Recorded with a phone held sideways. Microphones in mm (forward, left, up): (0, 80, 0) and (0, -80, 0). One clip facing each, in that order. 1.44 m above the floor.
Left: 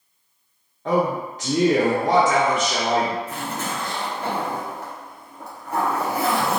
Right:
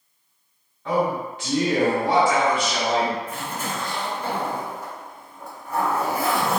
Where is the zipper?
70° left (ahead or behind), 0.7 m.